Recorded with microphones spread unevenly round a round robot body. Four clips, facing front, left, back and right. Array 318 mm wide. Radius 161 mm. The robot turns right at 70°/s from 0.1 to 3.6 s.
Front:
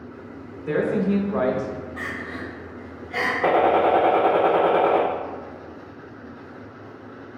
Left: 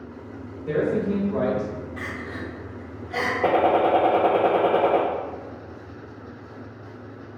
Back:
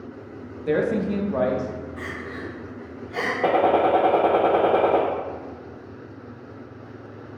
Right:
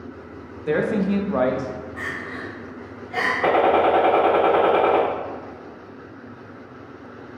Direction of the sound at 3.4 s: 120° left.